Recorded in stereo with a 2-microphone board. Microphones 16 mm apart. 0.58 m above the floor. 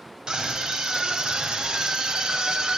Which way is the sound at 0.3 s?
60° right (ahead or behind).